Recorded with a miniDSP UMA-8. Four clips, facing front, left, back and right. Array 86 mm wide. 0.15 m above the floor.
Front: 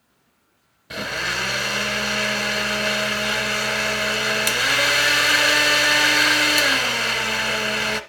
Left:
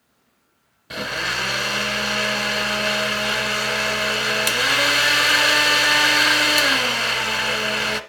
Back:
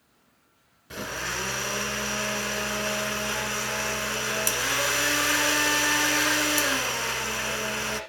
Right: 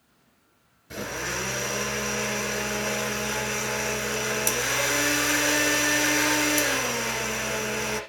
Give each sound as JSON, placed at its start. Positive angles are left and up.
{"t": 0.9, "sound": "a blender", "azimuth_deg": 60, "distance_m": 0.9}